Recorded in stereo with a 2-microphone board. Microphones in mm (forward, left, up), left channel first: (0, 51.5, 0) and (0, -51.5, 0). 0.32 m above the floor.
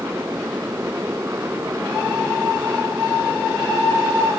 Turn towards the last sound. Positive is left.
turn(degrees=-25)  # may be behind; listen again after turning